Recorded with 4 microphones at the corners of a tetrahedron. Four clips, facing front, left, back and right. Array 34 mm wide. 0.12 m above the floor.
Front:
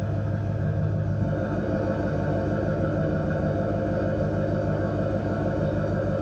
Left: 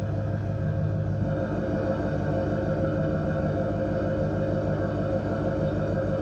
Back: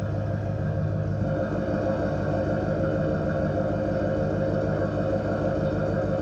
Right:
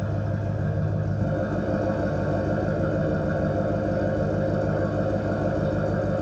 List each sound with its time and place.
0.0 s an engine running: 125° right, 5 m